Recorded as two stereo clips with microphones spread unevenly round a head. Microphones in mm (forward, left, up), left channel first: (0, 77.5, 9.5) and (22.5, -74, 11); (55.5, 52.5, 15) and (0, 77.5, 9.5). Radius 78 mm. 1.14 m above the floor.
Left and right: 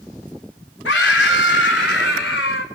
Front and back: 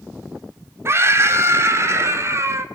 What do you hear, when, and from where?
0.8 s a scream: 115° left, 3 m